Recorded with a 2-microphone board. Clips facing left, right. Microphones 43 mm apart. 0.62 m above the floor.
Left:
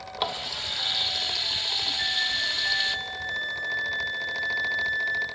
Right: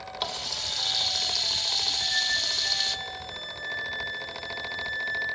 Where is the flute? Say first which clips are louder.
Left 1 dB; 15° left (ahead or behind), 2.5 m.